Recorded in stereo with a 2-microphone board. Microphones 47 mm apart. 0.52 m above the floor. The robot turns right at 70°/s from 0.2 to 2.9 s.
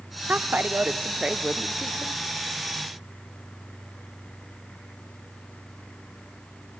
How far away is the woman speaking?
About 1.0 m.